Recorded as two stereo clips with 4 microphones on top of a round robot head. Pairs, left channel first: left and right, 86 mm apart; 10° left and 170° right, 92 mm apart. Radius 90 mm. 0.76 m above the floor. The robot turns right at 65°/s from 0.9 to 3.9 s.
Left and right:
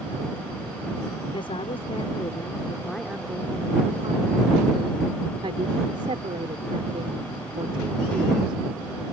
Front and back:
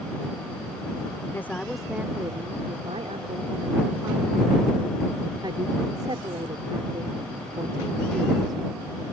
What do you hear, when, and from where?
1.3 s a woman speaking: 70° left; by 8.6 s 120° right